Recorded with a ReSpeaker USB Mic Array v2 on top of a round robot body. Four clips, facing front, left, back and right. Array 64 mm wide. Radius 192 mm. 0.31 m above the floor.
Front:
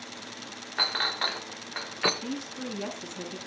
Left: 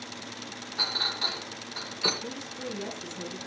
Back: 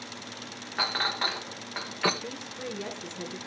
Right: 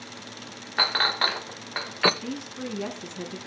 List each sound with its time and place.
0.8 s a clink: 85° right, 1.1 m
2.2 s a woman speaking: 50° right, 4.5 m